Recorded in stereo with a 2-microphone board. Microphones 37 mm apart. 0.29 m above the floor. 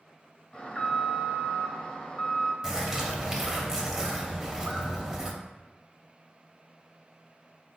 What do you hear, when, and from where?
0.5 s an alarm: 25° left (ahead or behind), 0.7 m
2.6 s a bird: 10° right (ahead or behind), 0.7 m